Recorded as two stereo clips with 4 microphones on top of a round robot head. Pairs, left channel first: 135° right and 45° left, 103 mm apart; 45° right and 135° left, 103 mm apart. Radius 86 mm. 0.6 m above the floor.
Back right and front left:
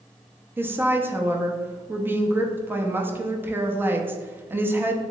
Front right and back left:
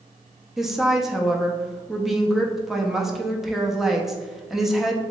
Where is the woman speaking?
55° left, 0.5 m.